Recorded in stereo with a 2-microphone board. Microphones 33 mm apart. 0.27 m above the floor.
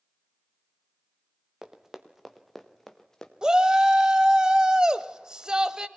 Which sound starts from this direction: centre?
Running footsteps, at 1.6 s.